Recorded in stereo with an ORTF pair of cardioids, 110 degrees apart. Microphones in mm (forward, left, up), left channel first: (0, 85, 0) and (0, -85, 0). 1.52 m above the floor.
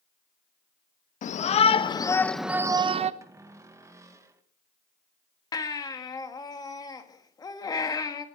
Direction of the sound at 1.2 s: 50° left.